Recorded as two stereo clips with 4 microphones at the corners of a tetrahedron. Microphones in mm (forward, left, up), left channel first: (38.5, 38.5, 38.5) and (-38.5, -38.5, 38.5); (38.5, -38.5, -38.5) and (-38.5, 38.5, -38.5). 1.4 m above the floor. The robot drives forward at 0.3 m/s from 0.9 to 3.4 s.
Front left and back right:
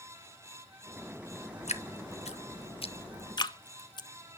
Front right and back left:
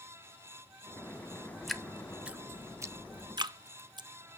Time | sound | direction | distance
1.7 | dripping | 45° left | 0.7 m